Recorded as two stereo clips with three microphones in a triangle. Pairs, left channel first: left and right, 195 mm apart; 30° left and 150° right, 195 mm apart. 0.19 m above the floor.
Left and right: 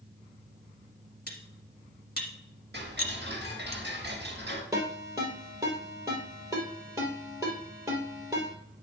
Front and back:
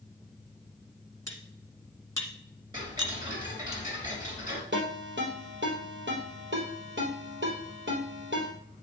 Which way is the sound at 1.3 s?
100° left.